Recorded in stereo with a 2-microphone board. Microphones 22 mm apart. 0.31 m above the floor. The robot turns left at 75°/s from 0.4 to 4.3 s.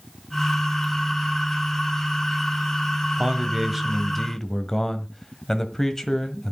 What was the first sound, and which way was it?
A man speaking, 120° right.